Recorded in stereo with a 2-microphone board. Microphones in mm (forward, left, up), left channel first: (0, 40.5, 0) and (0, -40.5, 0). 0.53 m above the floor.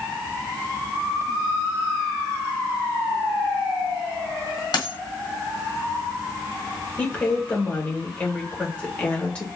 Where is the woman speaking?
15° left (ahead or behind), 2.5 m.